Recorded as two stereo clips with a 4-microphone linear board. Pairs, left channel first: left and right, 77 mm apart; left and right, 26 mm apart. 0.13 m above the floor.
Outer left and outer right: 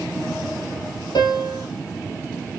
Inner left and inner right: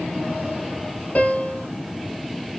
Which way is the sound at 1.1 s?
60° left (ahead or behind).